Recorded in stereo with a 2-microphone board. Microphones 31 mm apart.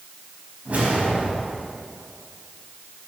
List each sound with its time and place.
0.7 s a whoosh: 45° right (ahead or behind), 4.5 m